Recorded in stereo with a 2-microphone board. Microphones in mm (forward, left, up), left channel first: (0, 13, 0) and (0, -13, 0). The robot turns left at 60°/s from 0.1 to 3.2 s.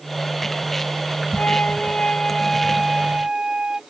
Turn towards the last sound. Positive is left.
turn(degrees=-35)